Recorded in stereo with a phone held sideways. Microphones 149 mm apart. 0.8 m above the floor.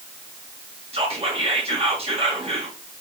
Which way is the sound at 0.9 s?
40° right (ahead or behind).